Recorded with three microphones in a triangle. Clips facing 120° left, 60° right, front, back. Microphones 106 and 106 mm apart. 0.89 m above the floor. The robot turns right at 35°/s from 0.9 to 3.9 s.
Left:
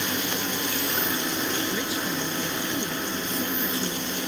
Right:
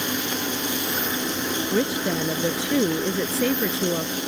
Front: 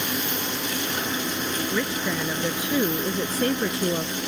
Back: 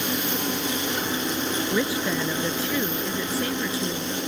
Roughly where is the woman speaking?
Right.